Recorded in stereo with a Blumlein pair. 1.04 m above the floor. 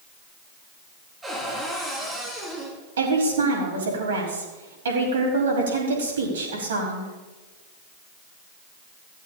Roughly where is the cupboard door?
Ahead.